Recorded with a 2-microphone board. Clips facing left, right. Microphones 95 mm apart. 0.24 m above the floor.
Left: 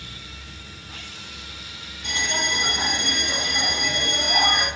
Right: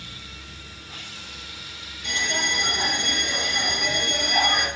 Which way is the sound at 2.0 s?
35° left (ahead or behind).